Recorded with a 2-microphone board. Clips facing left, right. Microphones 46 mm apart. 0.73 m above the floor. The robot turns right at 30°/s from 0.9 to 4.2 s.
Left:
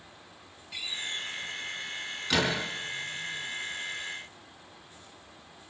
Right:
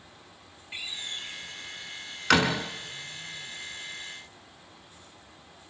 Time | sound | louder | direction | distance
0.7 | a door slam | left 2 dB | 30° right (ahead or behind) | 5.5 m